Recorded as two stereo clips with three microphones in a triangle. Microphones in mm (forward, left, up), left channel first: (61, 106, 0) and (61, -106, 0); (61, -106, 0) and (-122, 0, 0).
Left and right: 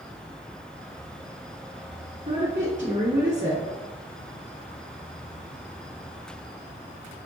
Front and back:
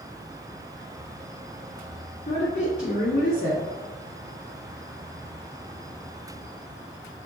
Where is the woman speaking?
60° right, 1.7 m.